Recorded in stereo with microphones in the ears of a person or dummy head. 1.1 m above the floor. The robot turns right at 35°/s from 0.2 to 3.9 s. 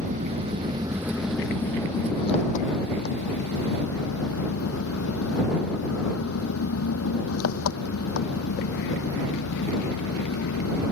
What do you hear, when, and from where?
0.0 s an engine running: 40° right; by 10.9 s 90° left